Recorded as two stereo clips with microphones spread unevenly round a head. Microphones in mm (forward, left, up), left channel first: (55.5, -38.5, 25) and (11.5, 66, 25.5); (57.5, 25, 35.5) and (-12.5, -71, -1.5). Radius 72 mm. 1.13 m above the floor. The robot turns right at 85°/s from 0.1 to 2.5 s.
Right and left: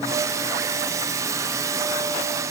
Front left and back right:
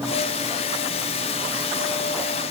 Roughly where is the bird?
No bird in this recording.